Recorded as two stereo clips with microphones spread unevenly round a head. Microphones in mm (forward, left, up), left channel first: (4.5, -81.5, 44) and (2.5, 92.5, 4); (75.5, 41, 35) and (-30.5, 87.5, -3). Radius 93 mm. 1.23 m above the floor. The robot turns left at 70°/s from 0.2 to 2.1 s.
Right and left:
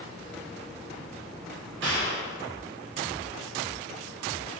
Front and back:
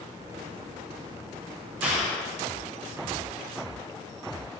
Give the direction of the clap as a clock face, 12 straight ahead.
9 o'clock.